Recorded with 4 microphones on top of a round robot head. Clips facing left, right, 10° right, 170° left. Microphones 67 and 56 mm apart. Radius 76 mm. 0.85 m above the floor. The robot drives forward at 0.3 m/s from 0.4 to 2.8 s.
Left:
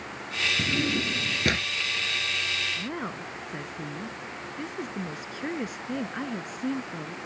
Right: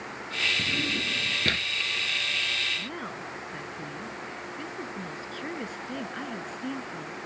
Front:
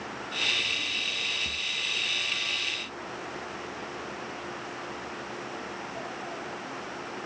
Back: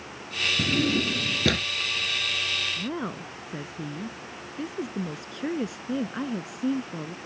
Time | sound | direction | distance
0.6 | a drawer | 165° left | ?
2.8 | a woman speaking | 165° left | ?